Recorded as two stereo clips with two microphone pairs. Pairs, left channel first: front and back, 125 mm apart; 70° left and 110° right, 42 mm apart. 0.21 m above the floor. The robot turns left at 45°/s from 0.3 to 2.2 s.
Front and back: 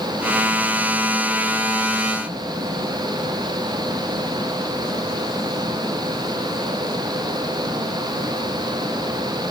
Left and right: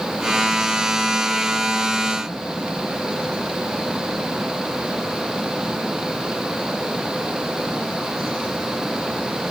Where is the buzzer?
I don't hear a buzzer.